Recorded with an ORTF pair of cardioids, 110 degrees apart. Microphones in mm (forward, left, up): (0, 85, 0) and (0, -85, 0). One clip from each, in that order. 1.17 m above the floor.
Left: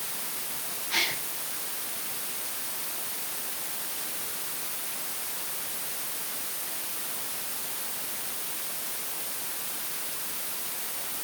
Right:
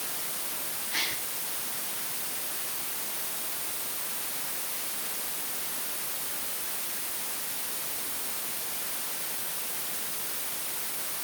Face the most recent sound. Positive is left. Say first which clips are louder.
# left 4 dB
turn(degrees=65)